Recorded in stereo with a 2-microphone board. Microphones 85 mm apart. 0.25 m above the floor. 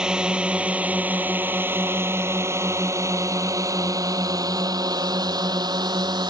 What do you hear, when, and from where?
0.0 s a drone: 10° right (ahead or behind); by 6.3 s 55° right (ahead or behind)